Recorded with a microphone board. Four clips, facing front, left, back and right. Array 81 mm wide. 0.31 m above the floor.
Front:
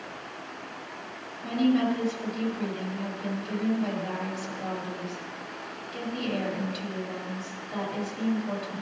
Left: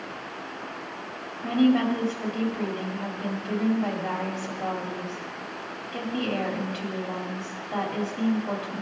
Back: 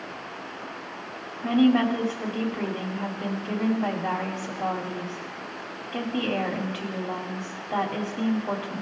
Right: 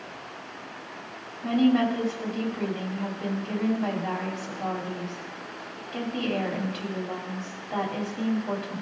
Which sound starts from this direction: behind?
A woman speaking, at 1.4 s.